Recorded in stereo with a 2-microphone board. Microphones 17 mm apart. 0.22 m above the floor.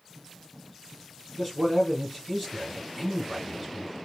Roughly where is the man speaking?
Centre.